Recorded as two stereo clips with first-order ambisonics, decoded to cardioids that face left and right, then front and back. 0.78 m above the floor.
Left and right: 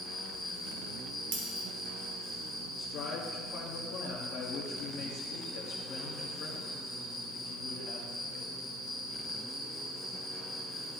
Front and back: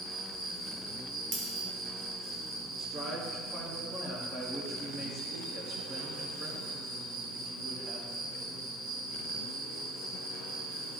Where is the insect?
Straight behind, 2.5 m.